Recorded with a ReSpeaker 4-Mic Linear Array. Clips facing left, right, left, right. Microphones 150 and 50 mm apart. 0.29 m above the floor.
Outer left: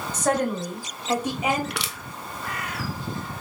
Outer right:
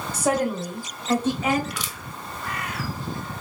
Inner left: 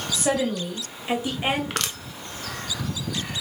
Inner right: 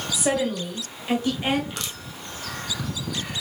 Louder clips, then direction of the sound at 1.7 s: Outer left 2 dB, inner left 5 dB; 70° left (ahead or behind).